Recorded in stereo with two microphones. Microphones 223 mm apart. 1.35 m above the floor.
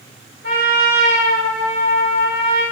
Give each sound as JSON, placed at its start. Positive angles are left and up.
{"t": 0.4, "sound": "a trumpet", "side_deg": -75, "distance_m": 2.5}